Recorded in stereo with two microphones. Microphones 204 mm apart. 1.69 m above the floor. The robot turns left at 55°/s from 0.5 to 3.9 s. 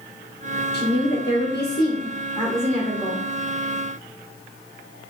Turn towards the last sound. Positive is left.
turn(degrees=-55)